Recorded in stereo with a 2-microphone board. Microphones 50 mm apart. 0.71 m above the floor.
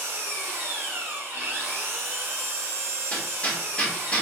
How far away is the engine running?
About 1.6 m.